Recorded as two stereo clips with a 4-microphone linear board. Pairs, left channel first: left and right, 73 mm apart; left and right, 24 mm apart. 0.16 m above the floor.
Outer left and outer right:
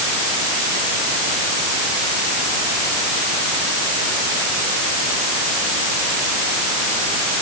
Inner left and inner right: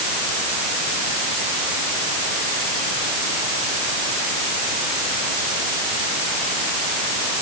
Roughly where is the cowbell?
No cowbell in this recording.